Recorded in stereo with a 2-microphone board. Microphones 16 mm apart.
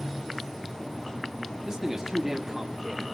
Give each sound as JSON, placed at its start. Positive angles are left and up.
{"t": 1.6, "sound": "a man speaking", "side_deg": -30, "distance_m": 1.9}